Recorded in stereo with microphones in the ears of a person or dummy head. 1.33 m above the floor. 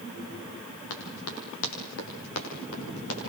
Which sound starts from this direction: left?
Running footsteps, at 0.9 s.